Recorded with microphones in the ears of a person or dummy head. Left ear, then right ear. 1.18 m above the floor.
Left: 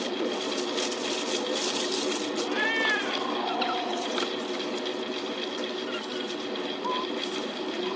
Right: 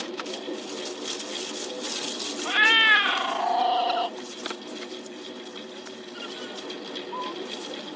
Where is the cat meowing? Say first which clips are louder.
Right 9 dB; 45° right (ahead or behind).